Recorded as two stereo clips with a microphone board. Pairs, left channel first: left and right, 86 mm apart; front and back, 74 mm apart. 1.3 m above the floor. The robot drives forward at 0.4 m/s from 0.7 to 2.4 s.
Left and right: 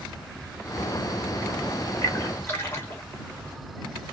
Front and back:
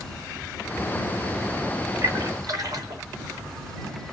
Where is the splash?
145° left, 1.0 m; by 3.0 s 150° left, 1.1 m.